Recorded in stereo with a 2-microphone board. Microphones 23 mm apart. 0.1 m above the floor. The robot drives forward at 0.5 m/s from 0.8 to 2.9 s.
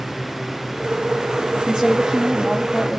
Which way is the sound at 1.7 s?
5° right (ahead or behind).